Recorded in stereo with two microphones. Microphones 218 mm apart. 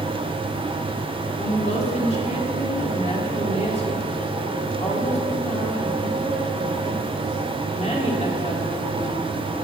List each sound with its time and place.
1.4 s a woman speaking: 30° left (ahead or behind), 3 m